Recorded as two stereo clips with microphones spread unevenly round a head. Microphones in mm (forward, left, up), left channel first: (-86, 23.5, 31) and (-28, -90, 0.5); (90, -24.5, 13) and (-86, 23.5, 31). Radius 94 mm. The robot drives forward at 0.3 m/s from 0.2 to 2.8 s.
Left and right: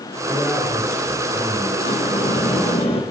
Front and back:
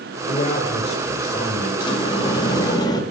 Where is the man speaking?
40° left, 6.5 m; by 1.7 s 45° left, 6 m.